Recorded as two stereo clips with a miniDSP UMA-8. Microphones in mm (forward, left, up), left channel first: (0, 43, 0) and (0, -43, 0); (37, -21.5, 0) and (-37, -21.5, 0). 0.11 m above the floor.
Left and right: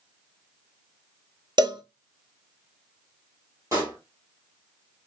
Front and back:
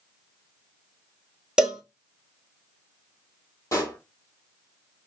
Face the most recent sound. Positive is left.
turn(degrees=-40)